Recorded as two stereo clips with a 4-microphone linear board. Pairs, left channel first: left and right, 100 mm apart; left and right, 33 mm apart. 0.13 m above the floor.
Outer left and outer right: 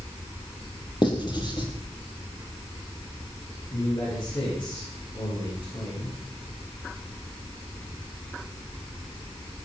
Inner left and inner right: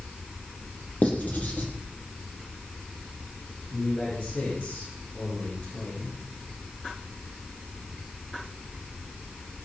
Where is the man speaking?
55° left (ahead or behind), 10 m.